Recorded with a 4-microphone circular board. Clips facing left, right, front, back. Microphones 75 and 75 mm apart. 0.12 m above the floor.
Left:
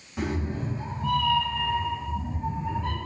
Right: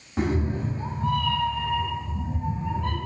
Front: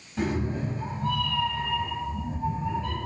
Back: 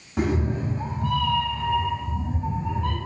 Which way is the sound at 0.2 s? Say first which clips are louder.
Right 4 dB, back 3 dB; 150° right.